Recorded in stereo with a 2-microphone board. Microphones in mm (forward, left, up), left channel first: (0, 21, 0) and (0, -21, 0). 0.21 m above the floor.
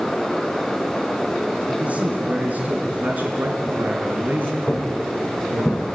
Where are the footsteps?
40° left (ahead or behind), 3.5 m; by 5.8 s 30° left (ahead or behind), 3 m.